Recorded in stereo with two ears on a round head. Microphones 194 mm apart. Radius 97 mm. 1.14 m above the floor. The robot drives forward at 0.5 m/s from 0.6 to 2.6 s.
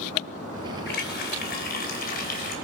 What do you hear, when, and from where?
0.9 s a running tap: 50° left (ahead or behind), 3.5 m; by 2.5 s 45° left (ahead or behind), 4 m